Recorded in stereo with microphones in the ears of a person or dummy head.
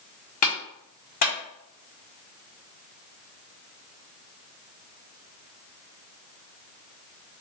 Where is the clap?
45° left (ahead or behind), 1.3 m.